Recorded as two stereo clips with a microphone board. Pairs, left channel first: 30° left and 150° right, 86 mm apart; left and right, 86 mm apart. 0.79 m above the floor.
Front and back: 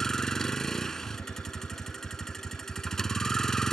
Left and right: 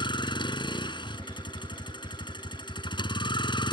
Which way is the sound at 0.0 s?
115° left.